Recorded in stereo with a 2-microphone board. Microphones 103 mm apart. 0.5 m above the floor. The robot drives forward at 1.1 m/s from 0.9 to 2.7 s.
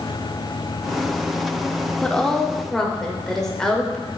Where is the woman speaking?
5° left (ahead or behind), 0.7 m.